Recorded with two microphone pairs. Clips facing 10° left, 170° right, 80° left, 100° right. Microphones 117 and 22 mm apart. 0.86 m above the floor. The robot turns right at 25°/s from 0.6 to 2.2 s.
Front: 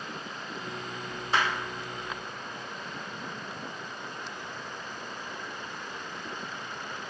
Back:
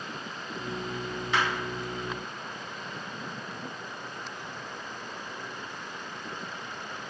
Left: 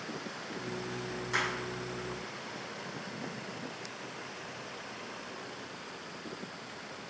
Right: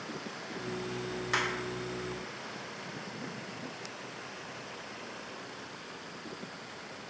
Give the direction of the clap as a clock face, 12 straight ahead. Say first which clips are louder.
Front 1 dB, right 1 dB; 1 o'clock.